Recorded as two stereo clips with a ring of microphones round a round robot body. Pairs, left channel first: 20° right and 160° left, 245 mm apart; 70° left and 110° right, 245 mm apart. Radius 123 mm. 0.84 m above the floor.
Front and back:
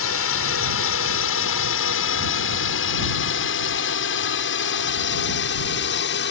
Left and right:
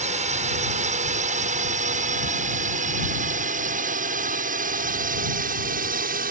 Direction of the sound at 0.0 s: 50° right.